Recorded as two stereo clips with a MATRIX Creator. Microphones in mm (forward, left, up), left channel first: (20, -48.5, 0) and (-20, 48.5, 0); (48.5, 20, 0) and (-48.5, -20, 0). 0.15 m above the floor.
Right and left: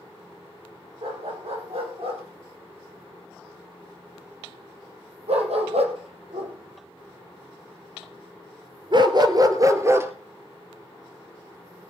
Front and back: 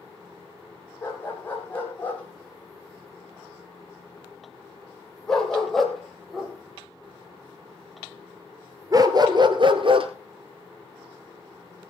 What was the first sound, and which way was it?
A dog barking, 95° left.